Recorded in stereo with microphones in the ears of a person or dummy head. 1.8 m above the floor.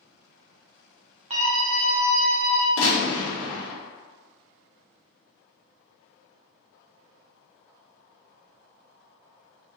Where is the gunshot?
85° left, 1.3 m.